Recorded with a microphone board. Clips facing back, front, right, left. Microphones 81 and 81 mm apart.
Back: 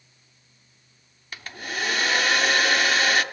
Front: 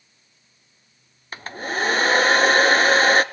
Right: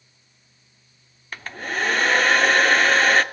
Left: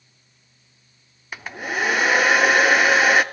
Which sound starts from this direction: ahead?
A hair dryer, at 1.3 s.